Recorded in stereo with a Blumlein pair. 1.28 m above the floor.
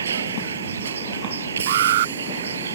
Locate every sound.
0.0 s a vehicle: 70° right
1.7 s an alarm: 55° right